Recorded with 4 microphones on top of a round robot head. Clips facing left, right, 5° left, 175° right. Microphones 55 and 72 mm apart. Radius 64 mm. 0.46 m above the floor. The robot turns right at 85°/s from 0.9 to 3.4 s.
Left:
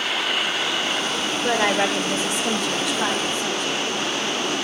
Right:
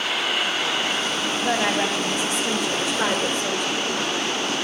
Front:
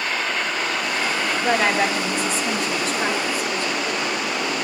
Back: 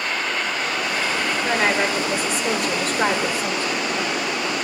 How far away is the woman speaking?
About 1.8 m.